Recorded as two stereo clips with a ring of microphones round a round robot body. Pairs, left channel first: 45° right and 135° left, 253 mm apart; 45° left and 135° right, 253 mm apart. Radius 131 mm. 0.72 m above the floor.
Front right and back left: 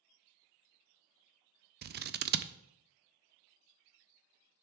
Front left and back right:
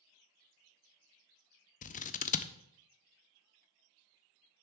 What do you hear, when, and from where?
1.8 s scissors: 95° left, 0.5 m